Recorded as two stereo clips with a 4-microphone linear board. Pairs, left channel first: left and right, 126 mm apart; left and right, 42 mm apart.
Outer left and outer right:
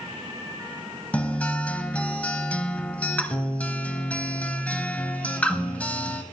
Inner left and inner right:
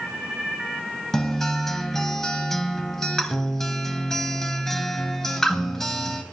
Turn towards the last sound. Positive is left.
turn(degrees=10)  # may be behind; listen again after turning